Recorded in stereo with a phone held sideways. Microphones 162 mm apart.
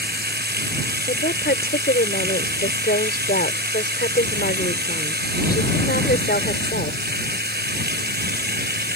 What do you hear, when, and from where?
0.0 s running water: 90° right
1.1 s a woman speaking: 80° left